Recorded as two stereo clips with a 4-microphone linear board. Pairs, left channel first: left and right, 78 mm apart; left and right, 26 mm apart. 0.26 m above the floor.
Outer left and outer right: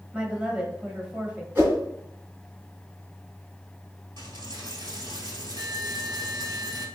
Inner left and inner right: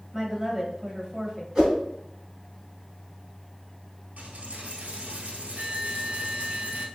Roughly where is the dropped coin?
Right.